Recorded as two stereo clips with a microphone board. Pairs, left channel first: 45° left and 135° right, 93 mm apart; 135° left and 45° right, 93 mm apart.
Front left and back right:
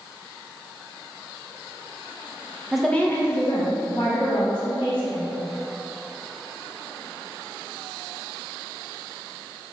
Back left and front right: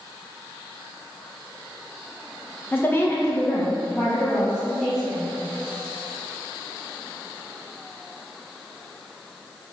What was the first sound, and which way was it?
A woman speaking, 150° left.